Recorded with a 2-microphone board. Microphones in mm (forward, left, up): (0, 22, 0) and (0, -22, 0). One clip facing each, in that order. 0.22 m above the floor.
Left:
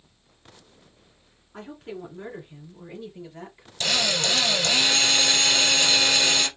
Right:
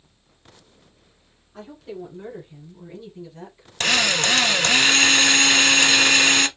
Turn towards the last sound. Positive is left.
turn(degrees=-50)  # may be behind; listen again after turning